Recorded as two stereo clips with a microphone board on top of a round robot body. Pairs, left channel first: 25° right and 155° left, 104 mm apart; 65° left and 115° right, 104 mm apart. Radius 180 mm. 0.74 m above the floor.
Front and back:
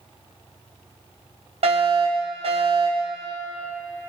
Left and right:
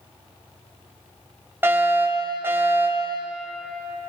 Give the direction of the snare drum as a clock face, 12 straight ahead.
I don't hear a snare drum.